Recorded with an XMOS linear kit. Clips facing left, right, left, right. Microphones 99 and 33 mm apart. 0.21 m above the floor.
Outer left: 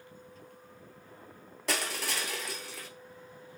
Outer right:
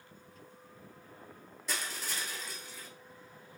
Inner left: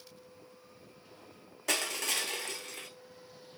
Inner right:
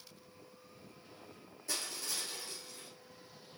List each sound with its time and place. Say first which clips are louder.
1.7 s crushing: outer left 6 dB, inner left 9 dB; 80° left, 1.0 m